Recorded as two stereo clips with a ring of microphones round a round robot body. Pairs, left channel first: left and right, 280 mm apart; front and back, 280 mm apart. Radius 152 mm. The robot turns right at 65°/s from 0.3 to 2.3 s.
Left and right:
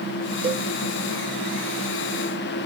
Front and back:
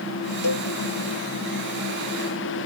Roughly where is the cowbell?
Ahead.